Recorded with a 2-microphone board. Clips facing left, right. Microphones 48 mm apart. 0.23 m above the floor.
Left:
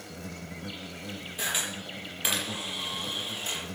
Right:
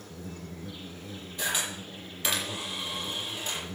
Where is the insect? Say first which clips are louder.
Left 1 dB; 70° left (ahead or behind), 2 m.